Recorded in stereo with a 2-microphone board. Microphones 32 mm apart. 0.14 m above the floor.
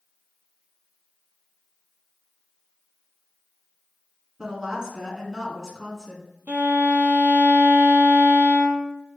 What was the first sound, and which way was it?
A woman speaking, 20° right (ahead or behind).